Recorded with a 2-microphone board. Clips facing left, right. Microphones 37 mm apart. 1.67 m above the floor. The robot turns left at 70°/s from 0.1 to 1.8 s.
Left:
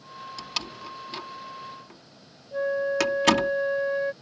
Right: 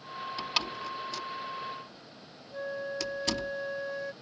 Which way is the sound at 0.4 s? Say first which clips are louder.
Right 2 dB; 20° right (ahead or behind).